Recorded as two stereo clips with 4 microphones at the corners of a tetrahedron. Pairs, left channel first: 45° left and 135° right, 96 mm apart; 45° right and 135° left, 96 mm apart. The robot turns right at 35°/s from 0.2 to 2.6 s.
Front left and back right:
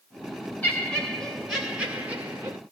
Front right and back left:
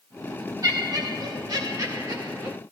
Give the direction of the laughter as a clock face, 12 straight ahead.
8 o'clock.